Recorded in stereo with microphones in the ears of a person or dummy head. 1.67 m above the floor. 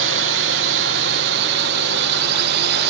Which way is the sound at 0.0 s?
60° right (ahead or behind).